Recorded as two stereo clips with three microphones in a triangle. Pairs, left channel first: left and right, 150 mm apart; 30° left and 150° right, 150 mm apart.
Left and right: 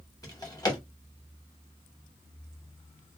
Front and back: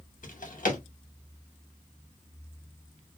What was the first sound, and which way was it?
A drawer, 30° left.